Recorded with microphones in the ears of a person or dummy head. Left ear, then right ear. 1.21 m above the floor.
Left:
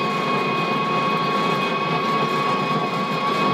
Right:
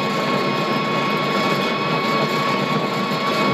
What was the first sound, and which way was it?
An engine running, 15° right (ahead or behind).